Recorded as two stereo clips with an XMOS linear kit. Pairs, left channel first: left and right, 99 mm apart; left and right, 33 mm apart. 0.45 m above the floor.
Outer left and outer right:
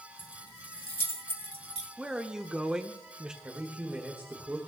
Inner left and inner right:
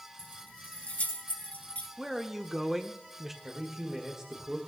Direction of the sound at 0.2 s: 55° left (ahead or behind).